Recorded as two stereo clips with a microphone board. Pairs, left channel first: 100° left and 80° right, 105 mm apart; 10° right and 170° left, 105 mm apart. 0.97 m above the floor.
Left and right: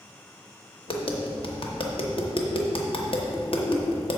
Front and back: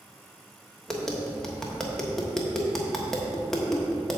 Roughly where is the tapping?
Left.